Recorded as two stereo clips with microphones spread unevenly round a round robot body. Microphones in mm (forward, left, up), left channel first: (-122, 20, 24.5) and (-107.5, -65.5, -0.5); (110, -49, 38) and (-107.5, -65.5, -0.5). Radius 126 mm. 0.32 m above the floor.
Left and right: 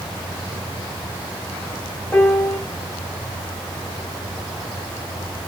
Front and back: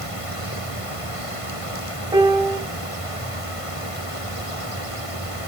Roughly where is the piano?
Behind.